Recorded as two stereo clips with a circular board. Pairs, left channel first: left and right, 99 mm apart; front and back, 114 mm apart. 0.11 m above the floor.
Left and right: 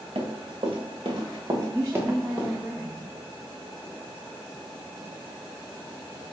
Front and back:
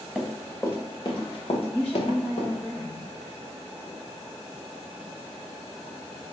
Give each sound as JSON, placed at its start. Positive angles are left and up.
{"t": 0.1, "sound": "running footsteps", "azimuth_deg": -85, "distance_m": 0.8}
{"t": 1.7, "sound": "a woman speaking", "azimuth_deg": -60, "distance_m": 1.2}